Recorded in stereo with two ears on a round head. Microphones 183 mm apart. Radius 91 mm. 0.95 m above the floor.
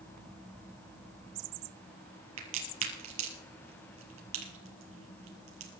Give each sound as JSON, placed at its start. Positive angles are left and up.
{"t": 2.4, "sound": "a crack", "side_deg": -80, "distance_m": 3.5}